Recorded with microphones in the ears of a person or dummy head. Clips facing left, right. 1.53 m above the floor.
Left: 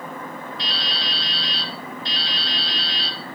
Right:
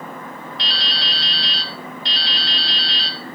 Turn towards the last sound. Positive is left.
turn(degrees=-60)  # may be behind; listen again after turning